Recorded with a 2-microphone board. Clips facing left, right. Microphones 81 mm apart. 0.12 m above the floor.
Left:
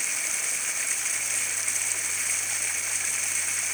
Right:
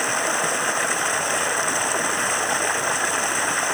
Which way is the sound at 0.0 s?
60° right (ahead or behind).